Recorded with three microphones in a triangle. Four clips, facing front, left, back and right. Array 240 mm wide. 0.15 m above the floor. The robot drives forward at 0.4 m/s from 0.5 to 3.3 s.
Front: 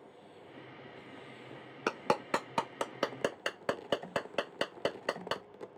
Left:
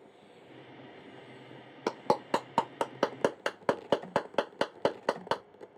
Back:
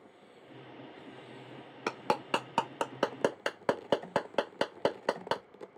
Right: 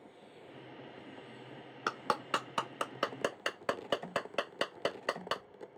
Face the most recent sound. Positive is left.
turn(degrees=120)